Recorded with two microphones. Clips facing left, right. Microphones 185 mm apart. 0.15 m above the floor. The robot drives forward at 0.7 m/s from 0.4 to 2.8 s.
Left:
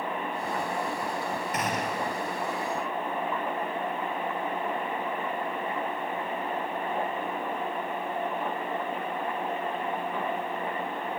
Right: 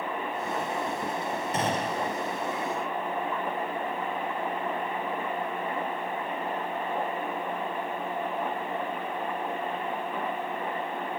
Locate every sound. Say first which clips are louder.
1.5 s a gunshot: right 3 dB; 30° right (ahead or behind), 4.5 m; by 2.1 s 35° right (ahead or behind), 4 m